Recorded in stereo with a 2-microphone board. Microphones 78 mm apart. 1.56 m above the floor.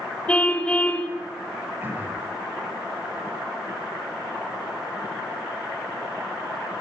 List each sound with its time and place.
0.3 s a car horn: 15° left (ahead or behind), 3.5 m
1.8 s throat clearing: 25° right (ahead or behind), 7 m